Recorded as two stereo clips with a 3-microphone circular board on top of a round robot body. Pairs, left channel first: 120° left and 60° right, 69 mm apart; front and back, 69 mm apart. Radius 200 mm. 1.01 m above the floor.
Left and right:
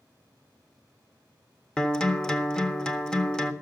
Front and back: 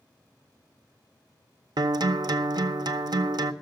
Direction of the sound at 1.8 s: 160° right.